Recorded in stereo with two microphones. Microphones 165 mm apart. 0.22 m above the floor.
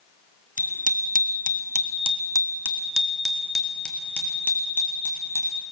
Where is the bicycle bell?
50° right (ahead or behind), 2 m; by 5.6 s 15° left (ahead or behind), 5.5 m.